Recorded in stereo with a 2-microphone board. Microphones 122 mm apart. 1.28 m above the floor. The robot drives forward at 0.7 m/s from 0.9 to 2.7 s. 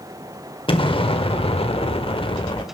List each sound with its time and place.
0.7 s an explosion: 45° left (ahead or behind), 1.4 m; by 2.6 s 40° left (ahead or behind), 1.5 m